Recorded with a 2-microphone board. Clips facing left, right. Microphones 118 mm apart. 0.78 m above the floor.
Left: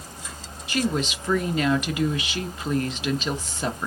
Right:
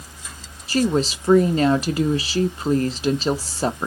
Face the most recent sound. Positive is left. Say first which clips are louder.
# right 5 dB
turn(degrees=-35)  # may be behind; listen again after turning